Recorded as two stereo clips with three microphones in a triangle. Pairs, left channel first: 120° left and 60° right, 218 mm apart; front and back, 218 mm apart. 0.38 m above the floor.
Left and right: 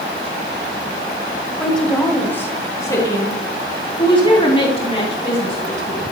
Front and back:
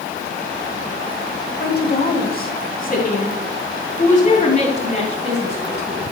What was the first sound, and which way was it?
A woman speaking, 30° left.